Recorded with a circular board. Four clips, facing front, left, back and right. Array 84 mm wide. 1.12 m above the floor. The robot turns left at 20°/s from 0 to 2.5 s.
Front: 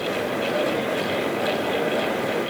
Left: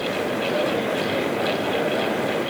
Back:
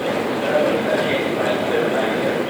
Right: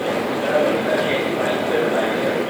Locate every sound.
Only background noise.